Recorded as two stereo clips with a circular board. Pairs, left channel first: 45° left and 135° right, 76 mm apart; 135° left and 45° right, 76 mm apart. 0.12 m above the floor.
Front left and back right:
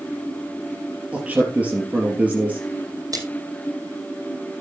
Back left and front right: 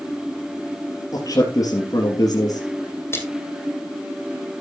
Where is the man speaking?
155° left, 3 m.